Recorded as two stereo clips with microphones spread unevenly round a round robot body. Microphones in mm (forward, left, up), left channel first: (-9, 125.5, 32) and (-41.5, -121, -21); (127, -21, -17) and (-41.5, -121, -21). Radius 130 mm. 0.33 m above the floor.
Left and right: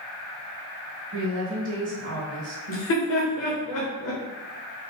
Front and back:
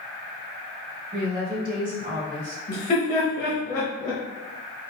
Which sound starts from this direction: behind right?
A woman speaking, at 1.1 s.